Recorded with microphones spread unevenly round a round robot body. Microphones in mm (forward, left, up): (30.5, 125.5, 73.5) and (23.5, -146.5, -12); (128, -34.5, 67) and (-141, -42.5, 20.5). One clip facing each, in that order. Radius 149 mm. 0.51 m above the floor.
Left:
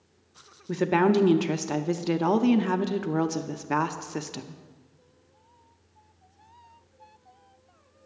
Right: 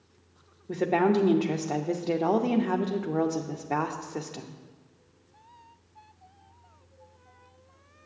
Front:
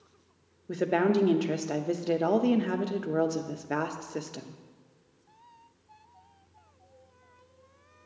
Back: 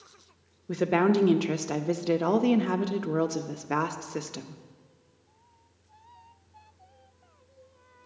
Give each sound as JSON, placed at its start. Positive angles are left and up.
{"t": 0.7, "sound": "a woman speaking", "azimuth_deg": 150, "distance_m": 0.7}